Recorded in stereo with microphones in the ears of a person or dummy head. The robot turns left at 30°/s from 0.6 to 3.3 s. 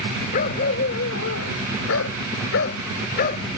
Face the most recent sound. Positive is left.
turn(degrees=55)